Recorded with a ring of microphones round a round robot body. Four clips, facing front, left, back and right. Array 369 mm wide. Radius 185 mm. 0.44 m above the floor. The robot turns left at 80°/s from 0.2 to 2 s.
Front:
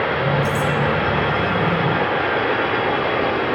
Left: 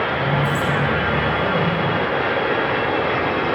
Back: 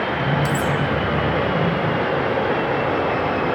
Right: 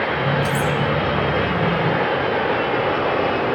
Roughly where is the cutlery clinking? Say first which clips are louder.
Even, front 1 dB; right.